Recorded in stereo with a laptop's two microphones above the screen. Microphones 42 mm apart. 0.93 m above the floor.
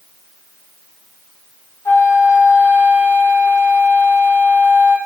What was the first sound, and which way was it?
A flute, 75° left (ahead or behind).